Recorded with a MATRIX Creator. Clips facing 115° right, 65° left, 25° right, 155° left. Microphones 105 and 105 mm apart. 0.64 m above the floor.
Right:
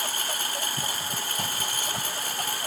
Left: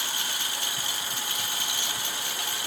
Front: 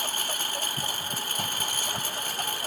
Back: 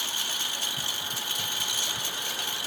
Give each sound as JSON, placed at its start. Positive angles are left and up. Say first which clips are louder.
{"t": 0.0, "sound": "a lawn mower", "louder": "right 3 dB, front 4 dB", "azimuth_deg": -65}